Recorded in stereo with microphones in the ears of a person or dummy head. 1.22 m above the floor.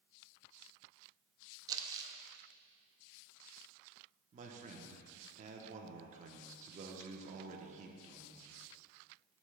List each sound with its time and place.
1.7 s crumpling: 20° right (ahead or behind), 0.5 m
4.3 s a man speaking: 40° right (ahead or behind), 0.9 m